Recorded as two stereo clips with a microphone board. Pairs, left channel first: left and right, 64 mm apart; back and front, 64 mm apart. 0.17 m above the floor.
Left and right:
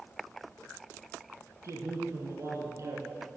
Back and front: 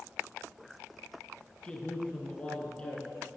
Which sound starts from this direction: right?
A man speaking, at 1.6 s.